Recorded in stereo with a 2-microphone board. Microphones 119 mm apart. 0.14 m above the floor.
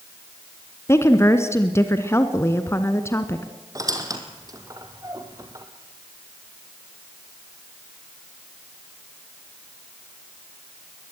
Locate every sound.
0.9 s a woman speaking: 25° left (ahead or behind), 1.1 m
3.8 s a squeak: 35° right (ahead or behind), 2.5 m